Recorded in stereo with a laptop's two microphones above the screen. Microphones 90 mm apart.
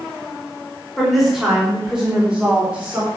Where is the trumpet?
No trumpet in this recording.